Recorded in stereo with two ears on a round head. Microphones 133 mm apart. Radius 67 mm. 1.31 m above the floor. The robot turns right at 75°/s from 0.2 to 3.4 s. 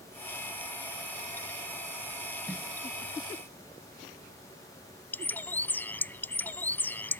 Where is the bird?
10° left (ahead or behind).